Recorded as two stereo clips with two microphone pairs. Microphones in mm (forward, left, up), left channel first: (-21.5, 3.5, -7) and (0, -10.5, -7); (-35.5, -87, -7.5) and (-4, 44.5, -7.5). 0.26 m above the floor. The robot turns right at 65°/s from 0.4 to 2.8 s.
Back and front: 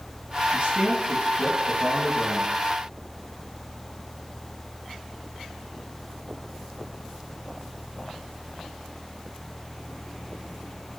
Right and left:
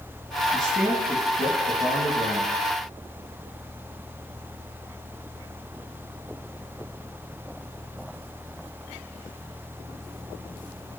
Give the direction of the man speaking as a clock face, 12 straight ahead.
1 o'clock.